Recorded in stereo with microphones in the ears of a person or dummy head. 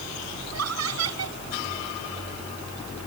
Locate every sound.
0.5 s laughter: 80° right